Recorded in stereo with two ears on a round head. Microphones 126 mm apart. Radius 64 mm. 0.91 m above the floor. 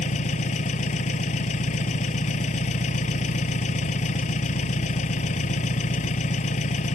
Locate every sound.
0.0 s an engine running: 55° left (ahead or behind)